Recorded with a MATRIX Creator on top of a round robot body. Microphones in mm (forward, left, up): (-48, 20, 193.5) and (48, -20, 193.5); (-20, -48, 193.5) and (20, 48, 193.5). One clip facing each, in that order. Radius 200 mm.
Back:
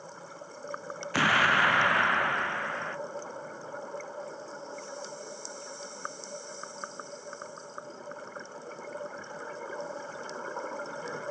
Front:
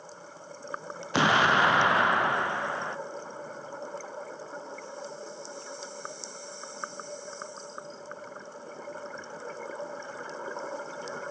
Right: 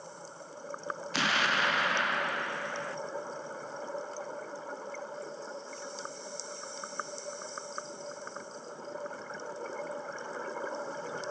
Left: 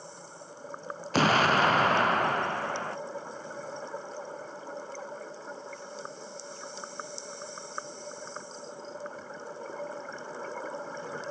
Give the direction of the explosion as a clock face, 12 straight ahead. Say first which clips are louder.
Front 3 dB, left 8 dB; 11 o'clock.